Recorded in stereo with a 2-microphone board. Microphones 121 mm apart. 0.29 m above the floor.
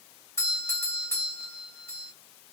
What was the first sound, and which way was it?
A doorbell, 25° left (ahead or behind).